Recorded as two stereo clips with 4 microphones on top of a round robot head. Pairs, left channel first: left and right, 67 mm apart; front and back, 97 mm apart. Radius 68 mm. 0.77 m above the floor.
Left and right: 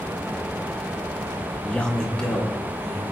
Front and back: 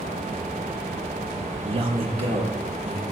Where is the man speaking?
165° left, 0.9 m; by 3.1 s 175° left, 3 m.